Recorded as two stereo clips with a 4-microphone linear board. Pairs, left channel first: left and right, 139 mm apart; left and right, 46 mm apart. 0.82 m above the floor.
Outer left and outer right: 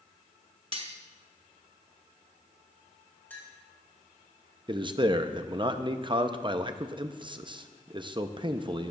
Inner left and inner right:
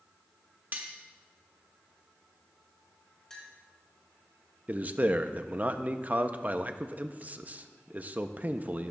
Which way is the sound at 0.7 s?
40° right (ahead or behind).